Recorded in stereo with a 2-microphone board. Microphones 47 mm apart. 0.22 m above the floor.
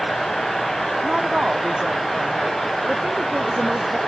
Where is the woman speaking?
15° right (ahead or behind).